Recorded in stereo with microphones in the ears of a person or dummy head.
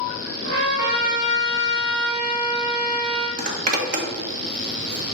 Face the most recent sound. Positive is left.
turn(degrees=-45)  # may be behind; listen again after turning